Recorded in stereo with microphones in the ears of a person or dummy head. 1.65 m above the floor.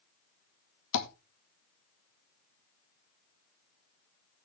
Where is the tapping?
75° left (ahead or behind), 2.5 m.